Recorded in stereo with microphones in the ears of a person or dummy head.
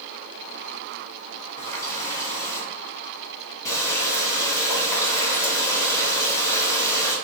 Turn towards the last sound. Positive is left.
turn(degrees=15)  # may be behind; listen again after turning